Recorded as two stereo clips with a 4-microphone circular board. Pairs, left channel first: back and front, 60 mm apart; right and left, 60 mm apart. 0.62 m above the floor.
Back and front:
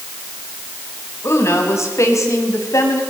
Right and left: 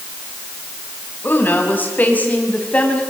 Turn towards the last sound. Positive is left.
turn(degrees=-155)